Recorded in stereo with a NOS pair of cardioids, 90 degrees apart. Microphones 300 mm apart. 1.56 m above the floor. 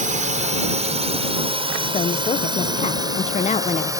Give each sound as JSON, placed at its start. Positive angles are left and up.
{"t": 0.0, "sound": "a drone", "azimuth_deg": -25}
{"t": 1.9, "sound": "a woman speaking", "azimuth_deg": 25}